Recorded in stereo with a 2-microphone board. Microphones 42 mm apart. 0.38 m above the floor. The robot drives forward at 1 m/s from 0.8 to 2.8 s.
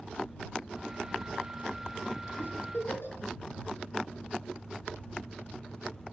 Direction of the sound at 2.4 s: 60° left (ahead or behind).